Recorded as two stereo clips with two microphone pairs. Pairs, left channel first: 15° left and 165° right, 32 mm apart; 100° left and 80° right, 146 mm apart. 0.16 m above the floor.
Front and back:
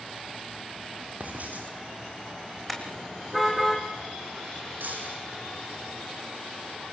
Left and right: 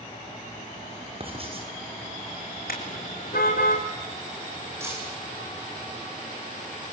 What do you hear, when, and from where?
1.2 s writing: 130° right, 7 m
2.7 s a car horn: 105° left, 4.5 m
4.8 s breaking glass: 150° right, 6.5 m